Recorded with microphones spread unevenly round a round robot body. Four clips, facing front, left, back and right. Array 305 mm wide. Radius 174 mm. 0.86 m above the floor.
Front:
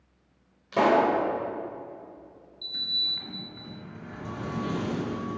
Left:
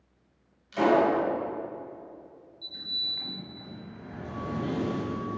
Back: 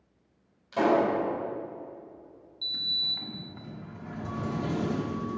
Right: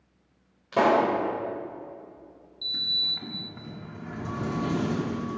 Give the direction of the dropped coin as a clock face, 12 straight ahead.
I don't hear a dropped coin.